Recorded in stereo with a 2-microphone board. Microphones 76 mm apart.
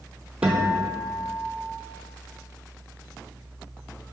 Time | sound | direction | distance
0.4 | a guitar | 10° right (ahead or behind) | 0.9 m